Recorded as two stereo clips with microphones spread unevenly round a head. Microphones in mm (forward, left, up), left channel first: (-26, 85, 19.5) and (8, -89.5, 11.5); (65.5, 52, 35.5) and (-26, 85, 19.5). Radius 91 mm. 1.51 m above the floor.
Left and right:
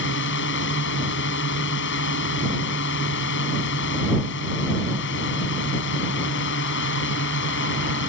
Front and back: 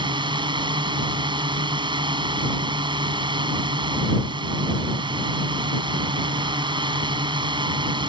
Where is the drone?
125° left.